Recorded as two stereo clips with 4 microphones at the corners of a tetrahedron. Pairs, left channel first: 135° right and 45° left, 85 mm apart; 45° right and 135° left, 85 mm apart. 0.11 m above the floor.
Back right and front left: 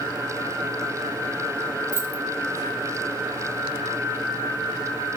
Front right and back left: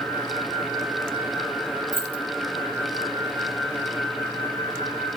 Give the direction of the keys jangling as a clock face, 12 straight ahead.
12 o'clock.